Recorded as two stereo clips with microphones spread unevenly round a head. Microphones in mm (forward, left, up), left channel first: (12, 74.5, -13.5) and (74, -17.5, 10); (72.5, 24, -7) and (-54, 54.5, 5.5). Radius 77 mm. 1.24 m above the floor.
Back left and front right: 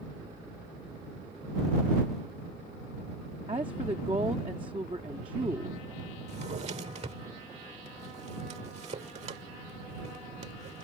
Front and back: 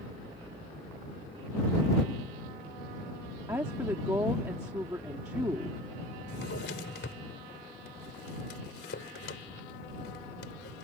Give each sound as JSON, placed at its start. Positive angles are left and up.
{"t": 3.5, "sound": "a woman speaking", "azimuth_deg": -120}
{"t": 6.3, "sound": "a drawer", "azimuth_deg": -30}